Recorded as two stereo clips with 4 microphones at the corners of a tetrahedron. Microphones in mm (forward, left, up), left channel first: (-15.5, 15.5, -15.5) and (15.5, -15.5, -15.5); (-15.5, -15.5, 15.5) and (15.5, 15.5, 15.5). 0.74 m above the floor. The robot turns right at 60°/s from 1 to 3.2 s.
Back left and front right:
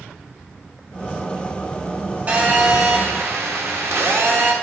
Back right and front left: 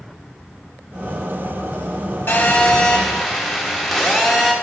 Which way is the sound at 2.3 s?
95° right.